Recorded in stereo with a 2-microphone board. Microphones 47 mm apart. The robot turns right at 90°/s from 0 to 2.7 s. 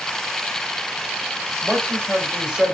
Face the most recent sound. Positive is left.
turn(degrees=-25)